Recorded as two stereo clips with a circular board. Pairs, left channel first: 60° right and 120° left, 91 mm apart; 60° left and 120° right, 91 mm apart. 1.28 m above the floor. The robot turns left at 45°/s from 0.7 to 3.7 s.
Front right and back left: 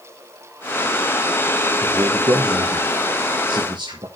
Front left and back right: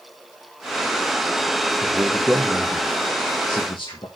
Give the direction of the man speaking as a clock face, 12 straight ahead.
6 o'clock.